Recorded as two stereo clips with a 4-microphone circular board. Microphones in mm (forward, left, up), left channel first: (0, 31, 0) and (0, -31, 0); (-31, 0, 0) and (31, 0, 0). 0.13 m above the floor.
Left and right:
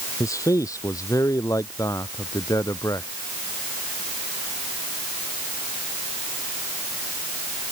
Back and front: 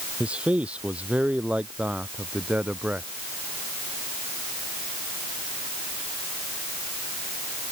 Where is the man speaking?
70° left; by 3.1 s 65° left.